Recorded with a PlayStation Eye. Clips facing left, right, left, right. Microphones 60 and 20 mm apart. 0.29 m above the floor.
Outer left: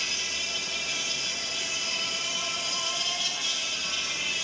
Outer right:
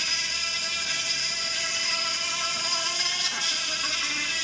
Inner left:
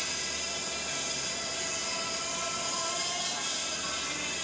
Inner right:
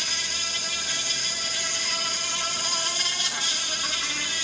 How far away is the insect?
About 1.6 m.